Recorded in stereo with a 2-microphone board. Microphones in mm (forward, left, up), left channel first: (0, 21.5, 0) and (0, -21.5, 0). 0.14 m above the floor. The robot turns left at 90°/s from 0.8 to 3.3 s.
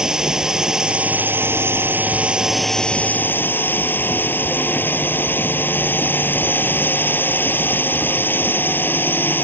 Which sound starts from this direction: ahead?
A drone, at 0.0 s.